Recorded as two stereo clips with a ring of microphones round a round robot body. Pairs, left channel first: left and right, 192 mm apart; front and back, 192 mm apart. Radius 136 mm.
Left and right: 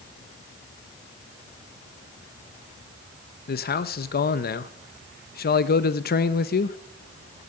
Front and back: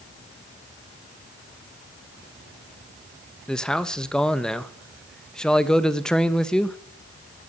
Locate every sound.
3.5 s a man speaking: 85° left, 0.8 m